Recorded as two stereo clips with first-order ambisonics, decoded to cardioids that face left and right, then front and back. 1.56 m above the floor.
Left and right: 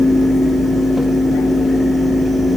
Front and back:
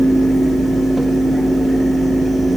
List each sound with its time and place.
Only background noise.